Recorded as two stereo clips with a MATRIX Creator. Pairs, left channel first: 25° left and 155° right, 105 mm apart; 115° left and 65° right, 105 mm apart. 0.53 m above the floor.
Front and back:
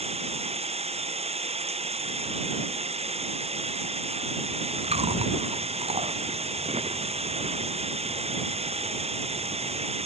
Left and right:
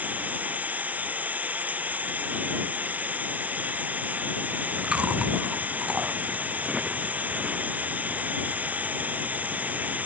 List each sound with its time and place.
0.0 s running water: 145° right
4.5 s chewing: 145° right